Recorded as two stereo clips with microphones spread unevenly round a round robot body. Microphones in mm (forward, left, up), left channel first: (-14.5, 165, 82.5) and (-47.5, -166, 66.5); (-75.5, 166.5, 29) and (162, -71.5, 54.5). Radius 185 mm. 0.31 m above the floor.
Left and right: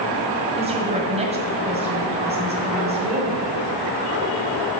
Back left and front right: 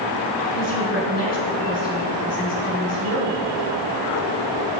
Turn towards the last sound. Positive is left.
turn(degrees=-165)